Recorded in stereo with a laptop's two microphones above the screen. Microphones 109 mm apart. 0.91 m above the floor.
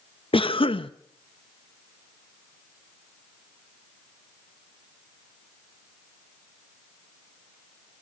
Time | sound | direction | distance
0.3 | a cough | 55° left (ahead or behind) | 0.8 m